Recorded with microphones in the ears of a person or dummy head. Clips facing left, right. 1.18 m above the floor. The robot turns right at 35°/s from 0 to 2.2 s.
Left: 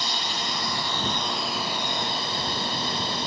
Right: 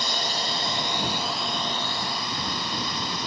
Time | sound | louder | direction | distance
0.0 | a drone | right 2 dB | 45° right (ahead or behind) | ?